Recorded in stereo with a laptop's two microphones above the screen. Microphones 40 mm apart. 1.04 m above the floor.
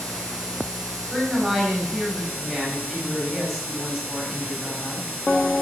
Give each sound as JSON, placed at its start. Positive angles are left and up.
{"t": 1.1, "sound": "a woman speaking", "side_deg": -10, "distance_m": 4.0}